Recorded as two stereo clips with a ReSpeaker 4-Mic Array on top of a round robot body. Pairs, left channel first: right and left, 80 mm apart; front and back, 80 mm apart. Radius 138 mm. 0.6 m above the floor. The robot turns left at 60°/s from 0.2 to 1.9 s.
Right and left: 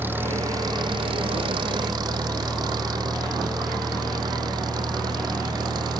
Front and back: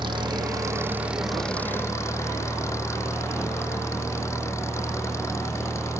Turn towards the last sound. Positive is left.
turn(degrees=55)